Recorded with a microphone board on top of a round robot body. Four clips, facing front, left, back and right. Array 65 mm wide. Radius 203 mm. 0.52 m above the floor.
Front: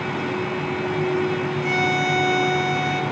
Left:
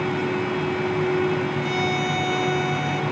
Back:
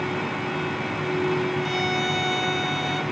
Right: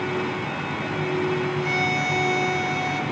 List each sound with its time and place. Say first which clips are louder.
1.6 s a violin: even, front 4 dB; 20° right, 2.5 m